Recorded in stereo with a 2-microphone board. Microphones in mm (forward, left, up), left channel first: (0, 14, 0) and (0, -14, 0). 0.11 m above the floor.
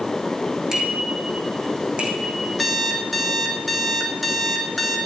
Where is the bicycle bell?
20° right (ahead or behind), 4 m; by 2.5 s 50° right (ahead or behind), 4.5 m.